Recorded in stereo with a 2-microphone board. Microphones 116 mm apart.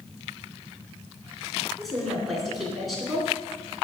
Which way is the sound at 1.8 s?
Centre (ahead or behind).